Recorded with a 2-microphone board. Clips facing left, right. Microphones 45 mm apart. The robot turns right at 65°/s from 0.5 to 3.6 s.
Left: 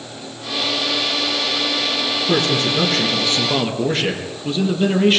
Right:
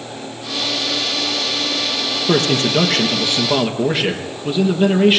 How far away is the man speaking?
About 3.5 m.